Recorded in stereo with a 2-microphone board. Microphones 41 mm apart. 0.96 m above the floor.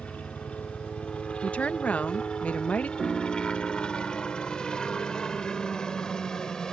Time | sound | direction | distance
0.0 | a helicopter | 30° left (ahead or behind) | ?
1.4 | a woman speaking | 35° left (ahead or behind) | ?
3.0 | a piano | 5° right (ahead or behind) | ?